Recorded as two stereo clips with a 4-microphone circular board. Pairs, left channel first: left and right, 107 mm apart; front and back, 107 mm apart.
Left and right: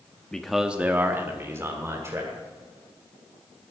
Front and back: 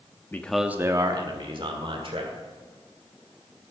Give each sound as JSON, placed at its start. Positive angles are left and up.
{"t": 0.3, "sound": "a man speaking", "azimuth_deg": 20, "distance_m": 0.8}